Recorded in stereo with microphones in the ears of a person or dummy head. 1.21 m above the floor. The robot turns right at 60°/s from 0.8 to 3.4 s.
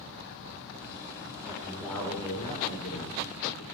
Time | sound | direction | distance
1.4 | a man speaking | 20° right | 3.5 m